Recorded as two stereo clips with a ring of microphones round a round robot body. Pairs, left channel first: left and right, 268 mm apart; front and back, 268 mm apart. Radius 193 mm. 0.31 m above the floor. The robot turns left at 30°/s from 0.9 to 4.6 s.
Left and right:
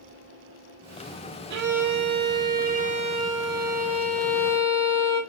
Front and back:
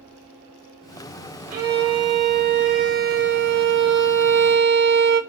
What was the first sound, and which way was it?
A violin, 100° right.